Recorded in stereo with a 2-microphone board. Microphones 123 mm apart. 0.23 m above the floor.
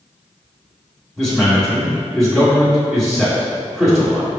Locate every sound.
1.2 s a man speaking: centre (ahead or behind), 1.6 m